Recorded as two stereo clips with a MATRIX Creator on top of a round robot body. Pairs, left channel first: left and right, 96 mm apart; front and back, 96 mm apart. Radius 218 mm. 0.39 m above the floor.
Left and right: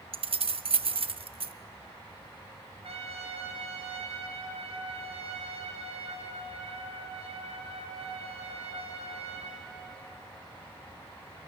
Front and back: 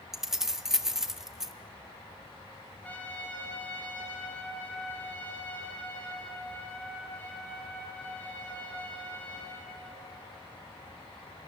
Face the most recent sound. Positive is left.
turn(degrees=-75)